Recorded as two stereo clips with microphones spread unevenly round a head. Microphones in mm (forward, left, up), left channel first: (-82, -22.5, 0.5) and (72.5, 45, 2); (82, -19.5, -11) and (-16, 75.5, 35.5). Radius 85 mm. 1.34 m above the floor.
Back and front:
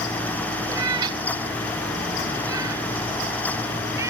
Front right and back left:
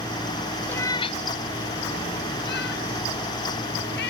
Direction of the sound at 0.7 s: 65° left.